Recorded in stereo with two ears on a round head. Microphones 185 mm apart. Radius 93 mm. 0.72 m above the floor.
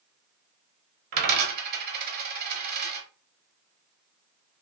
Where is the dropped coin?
50° right (ahead or behind), 0.8 m.